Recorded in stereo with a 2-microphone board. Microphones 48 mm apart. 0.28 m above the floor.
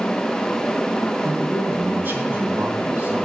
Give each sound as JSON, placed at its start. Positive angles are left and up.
{"t": 1.2, "sound": "a man speaking", "side_deg": -45, "distance_m": 3.0}